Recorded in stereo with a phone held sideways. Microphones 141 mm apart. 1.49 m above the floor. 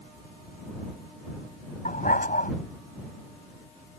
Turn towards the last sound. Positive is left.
turn(degrees=80)